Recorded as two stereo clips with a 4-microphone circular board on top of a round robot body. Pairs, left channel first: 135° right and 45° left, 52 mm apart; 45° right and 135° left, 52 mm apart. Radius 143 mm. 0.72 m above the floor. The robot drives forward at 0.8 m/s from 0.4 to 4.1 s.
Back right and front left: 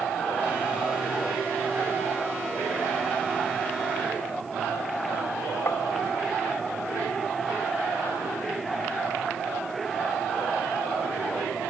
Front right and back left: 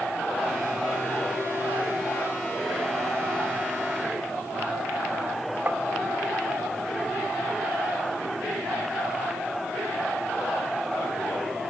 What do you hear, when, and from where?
5.7 s tapping: 170° right